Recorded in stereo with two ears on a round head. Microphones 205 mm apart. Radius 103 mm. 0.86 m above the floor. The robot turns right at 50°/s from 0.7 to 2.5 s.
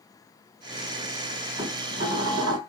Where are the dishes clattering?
160° right, 1.9 m; by 2.6 s 110° right, 1.9 m.